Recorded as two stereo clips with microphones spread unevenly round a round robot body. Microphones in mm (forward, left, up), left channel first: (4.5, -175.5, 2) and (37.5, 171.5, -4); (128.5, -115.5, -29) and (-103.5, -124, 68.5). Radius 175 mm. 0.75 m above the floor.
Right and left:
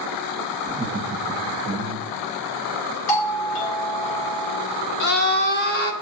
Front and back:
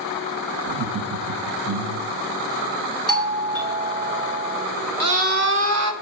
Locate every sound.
0.7 s laughter: 155° left, 0.6 m
3.1 s a doorbell: 130° right, 3.5 m
5.0 s a scream: 155° right, 1.6 m